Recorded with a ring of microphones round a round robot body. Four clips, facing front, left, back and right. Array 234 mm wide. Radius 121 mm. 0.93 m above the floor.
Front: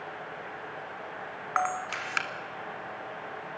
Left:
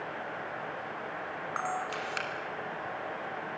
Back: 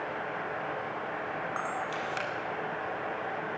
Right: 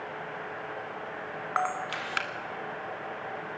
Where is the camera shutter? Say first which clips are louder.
Right 4 dB, front 3 dB; 35° right, 1.7 m.